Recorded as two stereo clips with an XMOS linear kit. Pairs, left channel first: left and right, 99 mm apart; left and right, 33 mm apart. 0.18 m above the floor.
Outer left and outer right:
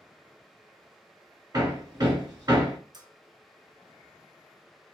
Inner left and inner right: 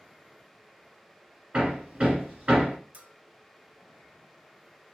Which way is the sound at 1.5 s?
45° right (ahead or behind).